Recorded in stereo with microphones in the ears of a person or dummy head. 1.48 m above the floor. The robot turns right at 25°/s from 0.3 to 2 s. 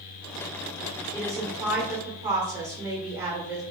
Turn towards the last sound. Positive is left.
turn(degrees=-15)  # may be behind; listen again after turning